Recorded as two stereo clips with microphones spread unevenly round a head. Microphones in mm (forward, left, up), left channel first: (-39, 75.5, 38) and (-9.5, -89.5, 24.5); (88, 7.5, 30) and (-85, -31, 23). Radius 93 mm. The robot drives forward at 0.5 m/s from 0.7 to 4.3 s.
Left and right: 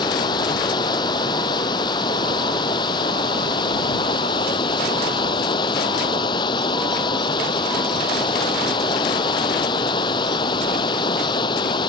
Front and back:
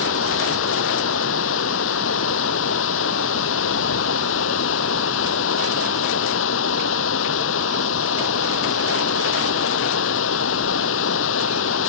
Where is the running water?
30° left; by 11.9 s 35° left.